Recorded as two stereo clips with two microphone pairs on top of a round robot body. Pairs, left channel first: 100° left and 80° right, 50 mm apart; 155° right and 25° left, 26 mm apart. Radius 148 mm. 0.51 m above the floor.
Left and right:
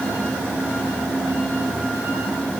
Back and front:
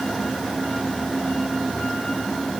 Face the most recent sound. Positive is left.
No sound to turn to.